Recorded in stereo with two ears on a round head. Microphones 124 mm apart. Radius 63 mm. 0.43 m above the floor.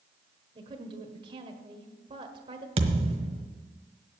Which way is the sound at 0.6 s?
35° right (ahead or behind).